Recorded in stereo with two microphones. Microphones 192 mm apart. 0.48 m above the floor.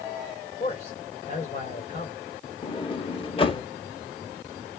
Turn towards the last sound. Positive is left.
turn(degrees=25)  # may be behind; listen again after turning